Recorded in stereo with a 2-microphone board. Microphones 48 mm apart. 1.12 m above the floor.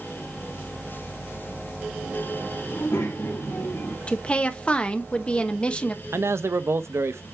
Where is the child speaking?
80° left, 2 m; by 4.0 s 75° left (ahead or behind), 1.8 m.